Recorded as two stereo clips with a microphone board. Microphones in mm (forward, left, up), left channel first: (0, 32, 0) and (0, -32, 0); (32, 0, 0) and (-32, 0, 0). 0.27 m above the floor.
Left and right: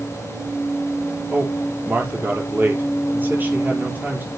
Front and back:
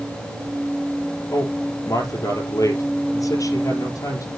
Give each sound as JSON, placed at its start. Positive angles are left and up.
{"t": 1.3, "sound": "a man speaking", "azimuth_deg": -30, "distance_m": 5.5}